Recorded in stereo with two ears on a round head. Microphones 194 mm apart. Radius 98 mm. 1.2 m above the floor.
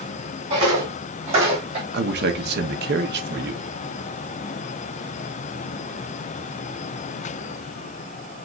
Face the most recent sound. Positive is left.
turn(degrees=-50)  # may be behind; listen again after turning